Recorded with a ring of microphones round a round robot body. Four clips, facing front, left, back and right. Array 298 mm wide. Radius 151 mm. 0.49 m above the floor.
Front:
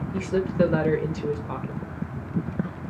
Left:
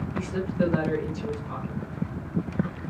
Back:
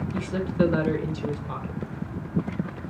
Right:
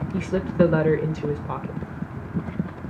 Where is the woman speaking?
75° right, 1.8 m.